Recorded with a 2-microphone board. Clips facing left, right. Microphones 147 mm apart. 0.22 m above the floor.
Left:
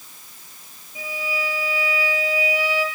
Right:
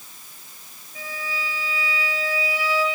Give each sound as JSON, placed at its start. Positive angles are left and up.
{"t": 0.9, "sound": "a violin", "side_deg": 15, "distance_m": 5.0}